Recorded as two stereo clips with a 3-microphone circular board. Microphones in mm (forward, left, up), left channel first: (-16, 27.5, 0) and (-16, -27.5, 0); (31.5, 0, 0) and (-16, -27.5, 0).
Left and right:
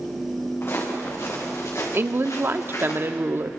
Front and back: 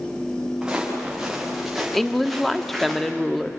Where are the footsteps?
135° left, 6.5 m; by 2.9 s 115° left, 7.5 m.